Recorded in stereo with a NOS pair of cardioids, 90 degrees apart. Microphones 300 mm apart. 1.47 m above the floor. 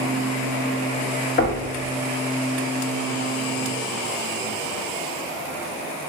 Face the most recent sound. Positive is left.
turn(degrees=40)